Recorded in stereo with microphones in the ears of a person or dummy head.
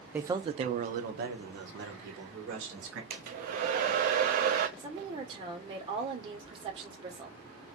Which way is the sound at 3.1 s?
45° right (ahead or behind).